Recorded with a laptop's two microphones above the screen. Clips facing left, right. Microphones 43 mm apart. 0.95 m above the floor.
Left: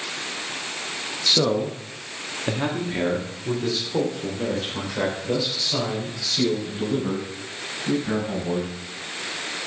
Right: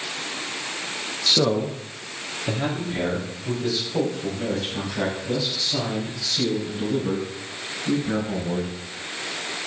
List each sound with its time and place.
1.3 s a man speaking: 5° right (ahead or behind), 0.8 m; by 8.8 s 60° left (ahead or behind), 5.5 m